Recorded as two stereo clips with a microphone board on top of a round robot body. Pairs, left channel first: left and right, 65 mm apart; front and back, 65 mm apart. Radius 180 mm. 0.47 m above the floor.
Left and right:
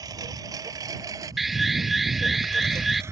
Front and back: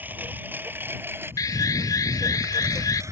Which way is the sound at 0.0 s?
120° right.